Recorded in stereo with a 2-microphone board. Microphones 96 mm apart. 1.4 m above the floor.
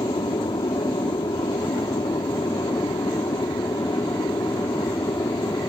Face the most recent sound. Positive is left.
turn(degrees=40)  # may be behind; listen again after turning